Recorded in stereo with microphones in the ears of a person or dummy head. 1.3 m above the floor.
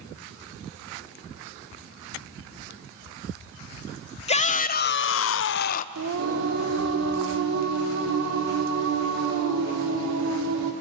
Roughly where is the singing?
Right.